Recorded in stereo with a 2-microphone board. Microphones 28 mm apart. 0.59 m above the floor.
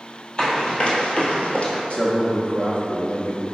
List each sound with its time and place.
0.4 s running footsteps: 40° left (ahead or behind), 1.1 m; by 1.8 s 55° left (ahead or behind), 0.9 m
1.9 s a man speaking: 45° left (ahead or behind), 0.7 m